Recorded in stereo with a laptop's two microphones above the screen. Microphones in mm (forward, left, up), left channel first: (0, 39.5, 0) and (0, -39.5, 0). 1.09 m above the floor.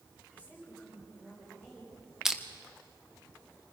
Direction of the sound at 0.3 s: 20° right (ahead or behind).